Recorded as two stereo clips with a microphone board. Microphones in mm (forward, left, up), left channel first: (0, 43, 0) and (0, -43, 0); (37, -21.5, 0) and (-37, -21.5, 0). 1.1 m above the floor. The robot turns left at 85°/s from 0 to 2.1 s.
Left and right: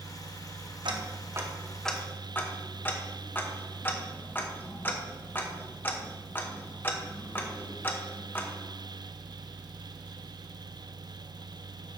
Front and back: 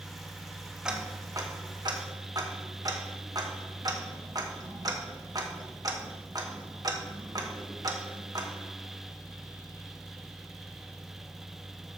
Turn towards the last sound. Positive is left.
turn(degrees=155)